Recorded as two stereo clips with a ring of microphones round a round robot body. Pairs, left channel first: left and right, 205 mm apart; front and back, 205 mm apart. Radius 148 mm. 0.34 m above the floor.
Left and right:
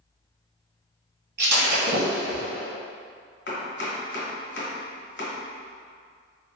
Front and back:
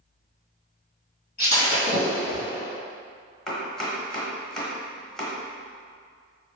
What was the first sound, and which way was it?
Breaking glass, 55° right.